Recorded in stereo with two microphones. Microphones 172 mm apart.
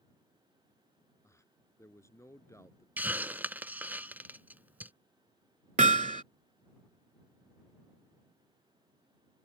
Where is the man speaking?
15° left (ahead or behind).